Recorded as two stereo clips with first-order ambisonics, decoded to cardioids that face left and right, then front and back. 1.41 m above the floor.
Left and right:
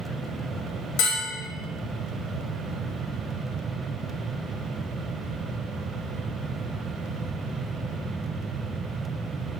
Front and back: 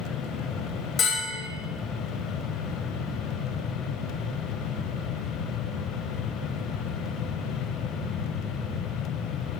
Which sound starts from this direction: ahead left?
A bell, at 1.0 s.